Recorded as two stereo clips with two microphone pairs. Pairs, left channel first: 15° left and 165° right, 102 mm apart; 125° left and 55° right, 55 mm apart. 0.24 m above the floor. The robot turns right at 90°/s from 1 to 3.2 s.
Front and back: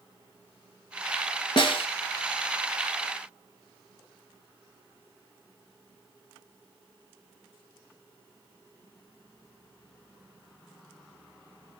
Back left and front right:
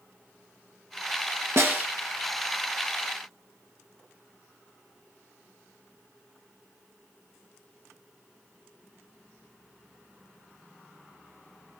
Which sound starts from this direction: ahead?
A snare drum, at 1.6 s.